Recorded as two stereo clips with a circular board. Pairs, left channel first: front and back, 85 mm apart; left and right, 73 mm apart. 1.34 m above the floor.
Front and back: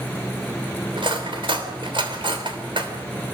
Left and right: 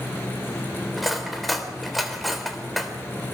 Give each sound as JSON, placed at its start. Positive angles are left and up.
{"t": 1.0, "sound": "cutlery clinking", "azimuth_deg": 180, "distance_m": 3.0}